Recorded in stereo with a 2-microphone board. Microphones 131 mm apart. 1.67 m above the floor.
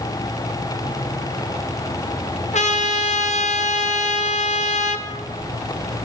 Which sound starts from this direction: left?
A trumpet, at 2.5 s.